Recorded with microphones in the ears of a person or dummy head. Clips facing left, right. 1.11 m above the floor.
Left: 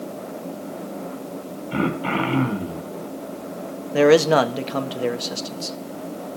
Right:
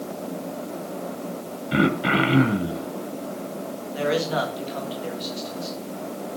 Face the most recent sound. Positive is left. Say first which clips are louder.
# left 10 dB
turn(degrees=75)  # may be behind; listen again after turning